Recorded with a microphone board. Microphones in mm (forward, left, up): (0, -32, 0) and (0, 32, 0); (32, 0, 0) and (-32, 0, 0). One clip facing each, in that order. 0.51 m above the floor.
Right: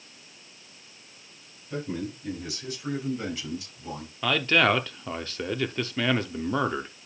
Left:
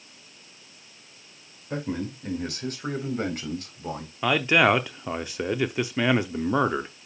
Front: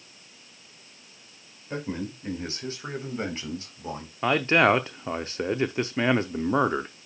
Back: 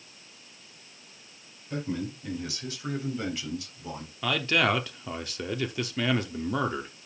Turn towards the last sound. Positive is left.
turn(degrees=30)